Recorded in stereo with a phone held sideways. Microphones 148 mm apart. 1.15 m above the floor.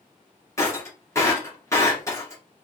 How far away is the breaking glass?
About 2 m.